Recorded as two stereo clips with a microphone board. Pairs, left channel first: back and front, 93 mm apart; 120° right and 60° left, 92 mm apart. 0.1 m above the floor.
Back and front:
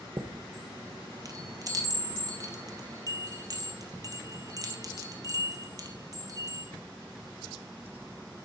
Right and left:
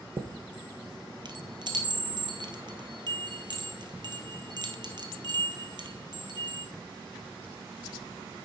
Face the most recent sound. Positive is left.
turn(degrees=40)